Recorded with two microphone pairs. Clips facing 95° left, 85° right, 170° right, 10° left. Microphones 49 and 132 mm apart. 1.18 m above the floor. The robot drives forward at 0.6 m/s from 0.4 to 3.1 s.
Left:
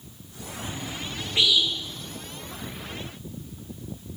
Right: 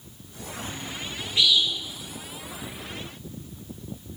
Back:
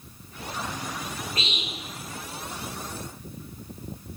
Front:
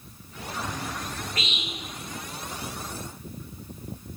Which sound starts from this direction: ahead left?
A bird, at 0.6 s.